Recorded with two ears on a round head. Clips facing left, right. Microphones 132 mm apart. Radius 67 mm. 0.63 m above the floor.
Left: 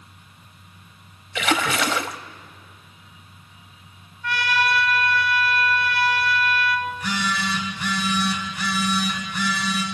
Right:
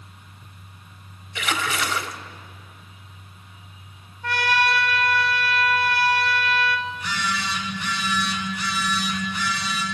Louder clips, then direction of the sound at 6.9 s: Left 2 dB; 45° left (ahead or behind).